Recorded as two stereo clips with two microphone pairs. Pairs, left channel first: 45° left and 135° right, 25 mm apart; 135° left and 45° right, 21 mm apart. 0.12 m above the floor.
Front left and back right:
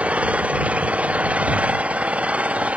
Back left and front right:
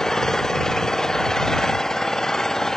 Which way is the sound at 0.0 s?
155° right.